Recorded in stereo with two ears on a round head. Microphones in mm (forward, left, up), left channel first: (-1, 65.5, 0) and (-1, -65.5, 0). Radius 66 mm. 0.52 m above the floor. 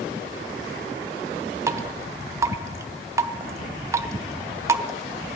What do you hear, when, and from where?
1.7 s dripping: 20° right (ahead or behind), 0.6 m